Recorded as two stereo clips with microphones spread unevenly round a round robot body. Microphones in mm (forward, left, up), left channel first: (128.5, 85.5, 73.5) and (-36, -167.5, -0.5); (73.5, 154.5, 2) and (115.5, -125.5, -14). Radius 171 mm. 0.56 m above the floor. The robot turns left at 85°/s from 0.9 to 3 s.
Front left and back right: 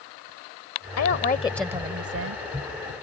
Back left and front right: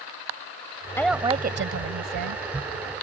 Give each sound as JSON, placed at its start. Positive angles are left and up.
{"t": 1.0, "sound": "a woman speaking", "azimuth_deg": 20}